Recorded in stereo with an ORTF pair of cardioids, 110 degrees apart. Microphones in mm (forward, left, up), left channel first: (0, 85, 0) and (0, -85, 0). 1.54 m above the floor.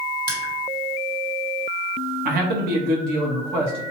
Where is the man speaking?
65° right, 0.9 m.